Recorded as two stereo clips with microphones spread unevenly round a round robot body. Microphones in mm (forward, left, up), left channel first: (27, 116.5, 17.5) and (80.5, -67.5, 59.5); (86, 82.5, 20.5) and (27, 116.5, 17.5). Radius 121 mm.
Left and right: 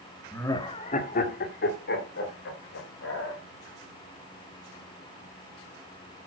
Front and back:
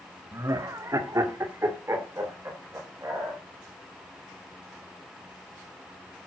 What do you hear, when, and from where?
0.3 s laughter: 175° left, 1.4 m; by 3.4 s 95° left, 4.5 m